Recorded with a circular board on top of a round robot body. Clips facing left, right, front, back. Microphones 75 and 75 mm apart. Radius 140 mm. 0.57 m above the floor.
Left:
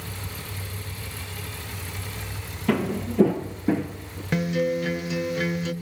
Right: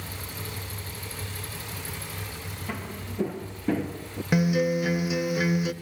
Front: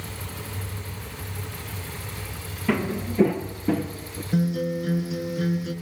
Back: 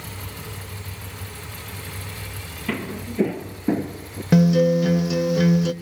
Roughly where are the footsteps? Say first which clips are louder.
Left 14 dB, front 4 dB; left.